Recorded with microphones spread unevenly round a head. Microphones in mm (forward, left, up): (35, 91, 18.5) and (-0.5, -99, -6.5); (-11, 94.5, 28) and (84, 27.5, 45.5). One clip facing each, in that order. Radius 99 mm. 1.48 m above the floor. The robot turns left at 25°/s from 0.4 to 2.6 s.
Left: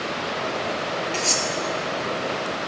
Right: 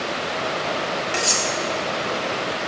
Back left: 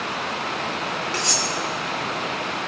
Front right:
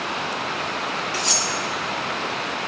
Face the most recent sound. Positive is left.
turn(degrees=150)